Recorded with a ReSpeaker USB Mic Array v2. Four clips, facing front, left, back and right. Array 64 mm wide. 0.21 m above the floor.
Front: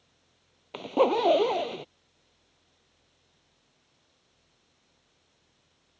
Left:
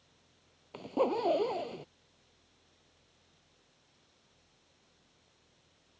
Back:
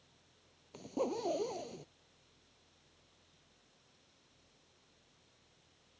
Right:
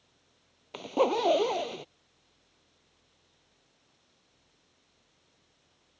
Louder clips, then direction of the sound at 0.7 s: Right 4 dB, front 14 dB; 20° right.